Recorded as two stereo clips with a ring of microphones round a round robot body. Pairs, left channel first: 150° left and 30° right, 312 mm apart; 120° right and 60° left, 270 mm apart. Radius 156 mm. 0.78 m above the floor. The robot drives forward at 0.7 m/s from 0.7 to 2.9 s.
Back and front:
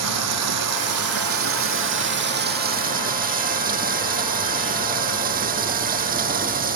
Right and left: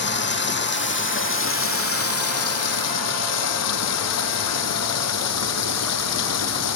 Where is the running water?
70° right; by 6.8 s 95° right.